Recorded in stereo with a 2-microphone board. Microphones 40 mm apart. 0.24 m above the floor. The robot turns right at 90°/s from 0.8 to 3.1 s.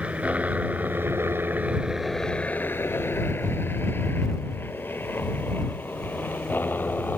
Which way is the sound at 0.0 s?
35° right (ahead or behind).